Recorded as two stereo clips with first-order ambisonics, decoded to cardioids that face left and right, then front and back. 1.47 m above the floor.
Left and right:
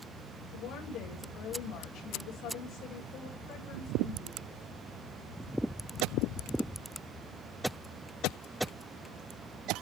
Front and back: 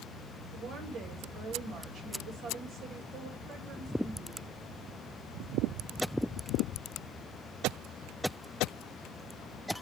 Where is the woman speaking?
130° left, 2.5 m.